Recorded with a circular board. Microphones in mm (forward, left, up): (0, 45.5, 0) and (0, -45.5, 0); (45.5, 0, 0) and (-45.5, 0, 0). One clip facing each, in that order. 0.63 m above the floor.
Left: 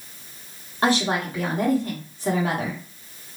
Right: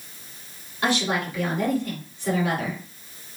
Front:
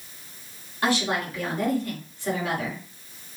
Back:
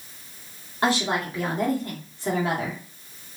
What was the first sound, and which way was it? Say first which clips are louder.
A woman speaking: left 3 dB, back 1 dB; 130° left.